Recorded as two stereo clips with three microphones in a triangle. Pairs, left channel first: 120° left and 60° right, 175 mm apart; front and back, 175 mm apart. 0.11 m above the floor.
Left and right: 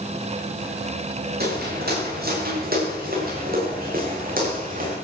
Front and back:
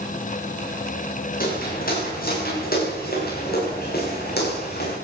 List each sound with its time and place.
1.4 s footsteps: 35° right, 8 m; by 5.0 s 25° right, 7 m